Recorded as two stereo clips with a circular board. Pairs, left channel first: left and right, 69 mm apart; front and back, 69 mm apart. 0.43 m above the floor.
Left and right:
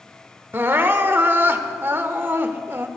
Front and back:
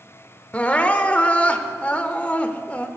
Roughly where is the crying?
Ahead right.